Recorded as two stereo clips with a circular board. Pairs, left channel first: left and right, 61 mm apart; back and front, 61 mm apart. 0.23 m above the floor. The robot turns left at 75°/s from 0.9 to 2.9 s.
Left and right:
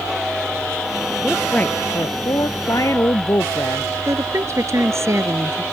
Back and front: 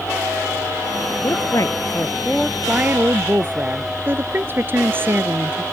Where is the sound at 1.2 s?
Straight behind; by 3.9 s 55° left.